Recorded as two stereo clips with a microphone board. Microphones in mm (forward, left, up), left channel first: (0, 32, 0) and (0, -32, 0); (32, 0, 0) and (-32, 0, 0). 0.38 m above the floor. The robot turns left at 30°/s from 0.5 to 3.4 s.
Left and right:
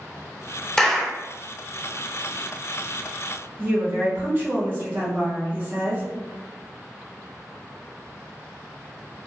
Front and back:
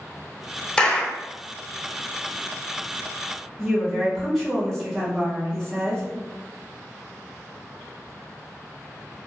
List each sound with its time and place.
0.8 s a clap: 35° left, 0.7 m; by 1.2 s 25° left, 0.7 m
3.6 s a woman speaking: 80° right, 1.2 m